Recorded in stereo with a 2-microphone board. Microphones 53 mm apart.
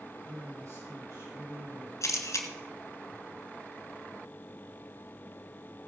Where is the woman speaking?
80° right, 6 m.